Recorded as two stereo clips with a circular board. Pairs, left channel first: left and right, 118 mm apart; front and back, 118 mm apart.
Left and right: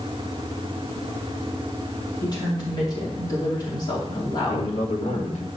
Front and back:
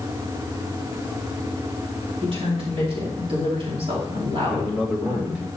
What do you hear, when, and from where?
2.2 s a woman speaking: 145° left, 3 m
4.5 s a man speaking: 100° left, 2.0 m